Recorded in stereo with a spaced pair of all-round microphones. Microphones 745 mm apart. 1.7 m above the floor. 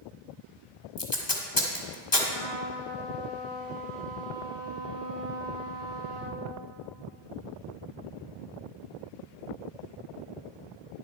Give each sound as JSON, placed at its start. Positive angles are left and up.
{"t": 1.0, "sound": "tape being pulled", "side_deg": 25, "distance_m": 1.3}
{"t": 2.3, "sound": "a trumpet", "side_deg": -55, "distance_m": 3.0}